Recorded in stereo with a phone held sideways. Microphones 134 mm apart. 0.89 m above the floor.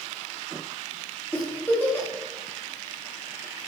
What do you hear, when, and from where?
1.3 s a giggle: 15° left (ahead or behind), 1.9 m